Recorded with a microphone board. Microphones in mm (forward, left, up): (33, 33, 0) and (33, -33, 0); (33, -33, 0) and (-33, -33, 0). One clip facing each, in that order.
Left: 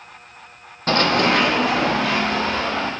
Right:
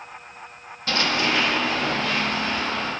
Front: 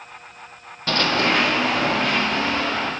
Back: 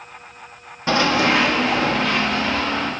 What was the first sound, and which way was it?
Running footsteps, 115° left.